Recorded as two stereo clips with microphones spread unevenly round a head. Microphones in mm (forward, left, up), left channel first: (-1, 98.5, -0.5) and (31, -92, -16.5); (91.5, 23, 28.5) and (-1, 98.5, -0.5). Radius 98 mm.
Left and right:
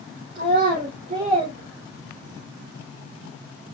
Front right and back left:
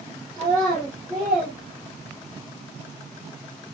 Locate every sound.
0.3 s a child speaking: 135° right, 4.5 m; by 2.5 s 150° right, 4 m